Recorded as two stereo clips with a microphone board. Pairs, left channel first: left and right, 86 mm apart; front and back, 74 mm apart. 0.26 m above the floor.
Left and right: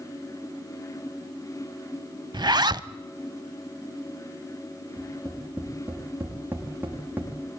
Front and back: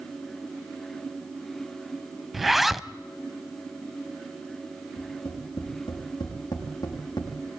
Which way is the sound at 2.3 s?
95° right.